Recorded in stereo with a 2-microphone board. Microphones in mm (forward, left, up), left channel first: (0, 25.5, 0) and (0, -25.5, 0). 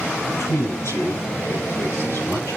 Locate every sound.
0.4 s a man speaking: 65° left (ahead or behind), 6.5 m